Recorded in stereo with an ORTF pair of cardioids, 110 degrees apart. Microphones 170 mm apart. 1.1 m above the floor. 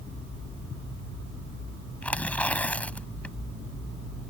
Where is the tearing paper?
5° left.